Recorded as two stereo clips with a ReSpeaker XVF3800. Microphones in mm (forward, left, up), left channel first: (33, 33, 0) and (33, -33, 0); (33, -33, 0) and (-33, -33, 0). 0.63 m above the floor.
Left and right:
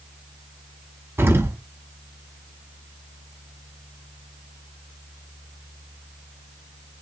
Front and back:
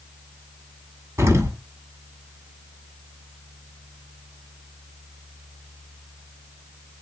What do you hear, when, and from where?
1.2 s an explosion: 140° right, 1.4 m